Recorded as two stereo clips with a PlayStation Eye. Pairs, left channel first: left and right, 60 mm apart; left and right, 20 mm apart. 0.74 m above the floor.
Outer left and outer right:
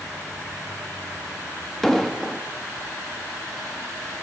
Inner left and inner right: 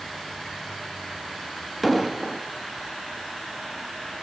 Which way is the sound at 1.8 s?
5° left (ahead or behind).